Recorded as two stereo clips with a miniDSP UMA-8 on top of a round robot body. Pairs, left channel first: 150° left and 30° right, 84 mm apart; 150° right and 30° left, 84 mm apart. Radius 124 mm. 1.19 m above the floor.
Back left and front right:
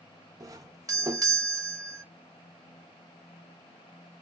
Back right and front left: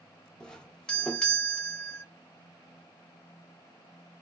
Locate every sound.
0.4 s a doorbell: 70° right, 0.9 m